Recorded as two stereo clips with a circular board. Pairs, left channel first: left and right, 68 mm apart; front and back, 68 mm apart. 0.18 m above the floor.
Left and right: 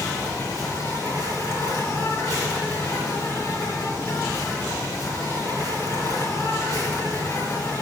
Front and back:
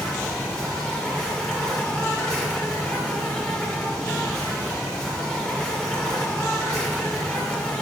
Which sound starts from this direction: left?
An insect, at 0.0 s.